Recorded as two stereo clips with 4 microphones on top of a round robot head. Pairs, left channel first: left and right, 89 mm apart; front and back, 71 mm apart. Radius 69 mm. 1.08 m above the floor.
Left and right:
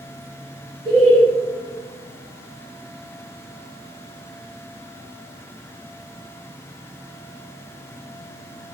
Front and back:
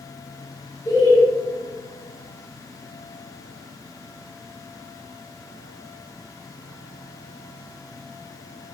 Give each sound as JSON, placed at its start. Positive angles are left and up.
{"t": 0.8, "sound": "laughter", "azimuth_deg": -65, "distance_m": 1.0}